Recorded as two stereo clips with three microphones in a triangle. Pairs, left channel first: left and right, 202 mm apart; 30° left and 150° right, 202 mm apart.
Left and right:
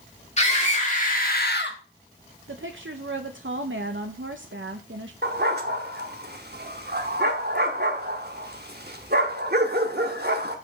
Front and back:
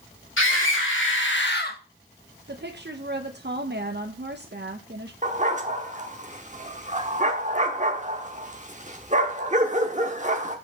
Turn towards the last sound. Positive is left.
turn(degrees=-105)